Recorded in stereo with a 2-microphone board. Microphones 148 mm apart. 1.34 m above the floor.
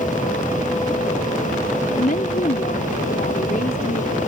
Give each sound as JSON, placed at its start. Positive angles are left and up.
{"t": 1.9, "sound": "a woman speaking", "side_deg": 85}